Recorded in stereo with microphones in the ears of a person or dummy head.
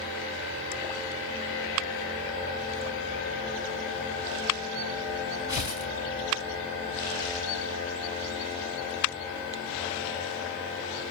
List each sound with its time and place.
5.5 s tearing paper: 15° right (ahead or behind), 5 m